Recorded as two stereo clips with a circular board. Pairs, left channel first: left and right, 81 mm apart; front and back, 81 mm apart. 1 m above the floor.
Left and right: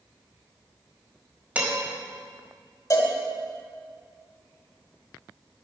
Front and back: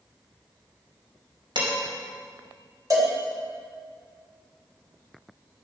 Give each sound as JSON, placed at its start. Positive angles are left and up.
{"t": 1.6, "sound": "dishes clattering", "azimuth_deg": -160, "distance_m": 4.5}
{"t": 2.9, "sound": "a cowbell", "azimuth_deg": 135, "distance_m": 3.0}